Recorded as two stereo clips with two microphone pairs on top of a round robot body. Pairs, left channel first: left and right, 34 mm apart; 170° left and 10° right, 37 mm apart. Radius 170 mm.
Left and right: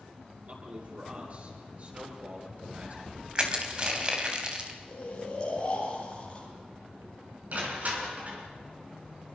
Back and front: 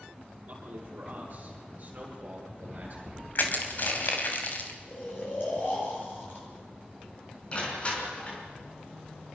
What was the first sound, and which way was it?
A man speaking, 55° right.